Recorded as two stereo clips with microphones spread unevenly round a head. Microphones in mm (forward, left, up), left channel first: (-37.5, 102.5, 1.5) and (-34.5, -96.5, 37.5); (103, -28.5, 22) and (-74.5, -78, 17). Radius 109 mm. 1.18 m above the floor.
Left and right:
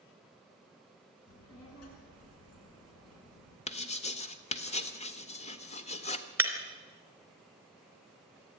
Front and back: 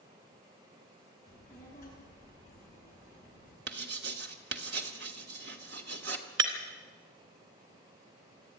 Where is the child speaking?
95° left, 7 m.